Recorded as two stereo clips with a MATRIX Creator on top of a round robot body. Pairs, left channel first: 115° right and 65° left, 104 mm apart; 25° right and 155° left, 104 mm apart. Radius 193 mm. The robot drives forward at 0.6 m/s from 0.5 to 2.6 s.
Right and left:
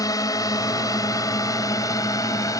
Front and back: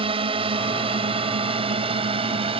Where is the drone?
170° right.